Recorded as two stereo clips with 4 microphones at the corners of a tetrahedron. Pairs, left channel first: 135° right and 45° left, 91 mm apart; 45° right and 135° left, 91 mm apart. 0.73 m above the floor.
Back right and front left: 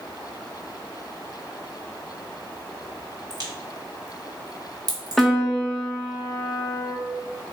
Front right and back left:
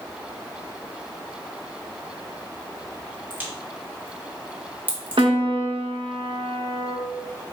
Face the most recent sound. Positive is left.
turn(degrees=135)